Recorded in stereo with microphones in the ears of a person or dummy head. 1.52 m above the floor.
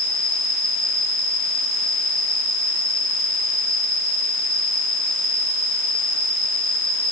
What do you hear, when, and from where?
0.0 s an insect: 10° left (ahead or behind), 4 m